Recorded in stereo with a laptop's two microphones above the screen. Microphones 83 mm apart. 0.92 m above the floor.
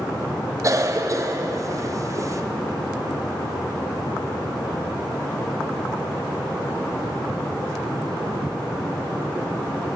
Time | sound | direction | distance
0.6 | a cough | 40° right (ahead or behind) | 0.7 m